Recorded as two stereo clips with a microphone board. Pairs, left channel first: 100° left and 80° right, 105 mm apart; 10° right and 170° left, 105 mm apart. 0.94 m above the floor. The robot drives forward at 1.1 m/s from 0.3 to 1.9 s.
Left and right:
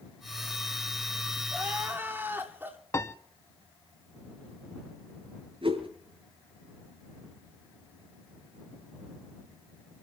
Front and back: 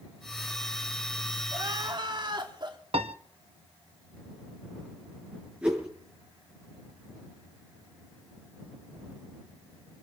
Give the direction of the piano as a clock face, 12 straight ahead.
7 o'clock.